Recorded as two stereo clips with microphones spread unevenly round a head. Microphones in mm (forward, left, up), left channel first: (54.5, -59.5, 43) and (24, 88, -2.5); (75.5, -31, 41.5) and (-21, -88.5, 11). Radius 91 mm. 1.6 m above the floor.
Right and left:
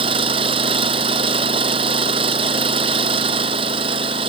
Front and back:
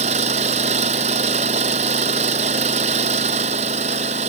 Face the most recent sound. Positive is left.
turn(degrees=165)